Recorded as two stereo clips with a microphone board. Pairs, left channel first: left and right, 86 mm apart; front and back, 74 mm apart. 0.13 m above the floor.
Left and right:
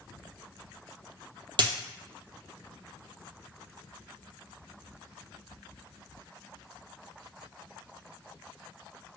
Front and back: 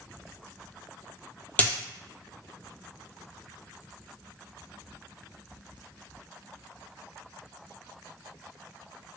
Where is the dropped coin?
70° right, 0.5 m.